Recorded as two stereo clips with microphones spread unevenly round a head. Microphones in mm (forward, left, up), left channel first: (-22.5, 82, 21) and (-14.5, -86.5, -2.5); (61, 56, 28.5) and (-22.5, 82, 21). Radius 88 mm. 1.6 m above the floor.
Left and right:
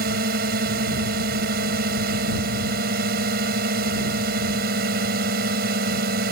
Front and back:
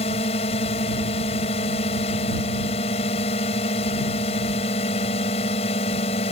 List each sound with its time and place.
0.0 s a drone: 45° right